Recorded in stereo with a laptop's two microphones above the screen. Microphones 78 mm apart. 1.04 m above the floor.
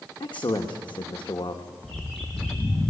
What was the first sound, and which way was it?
A man speaking, 75° left (ahead or behind).